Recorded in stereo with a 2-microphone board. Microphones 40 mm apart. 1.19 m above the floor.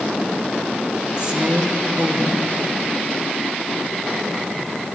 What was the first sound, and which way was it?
A woman speaking, 25° right (ahead or behind).